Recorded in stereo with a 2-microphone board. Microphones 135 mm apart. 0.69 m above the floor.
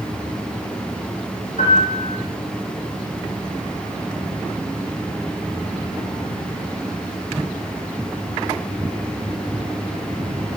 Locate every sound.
1.6 s a piano: 70° left (ahead or behind), 7.5 m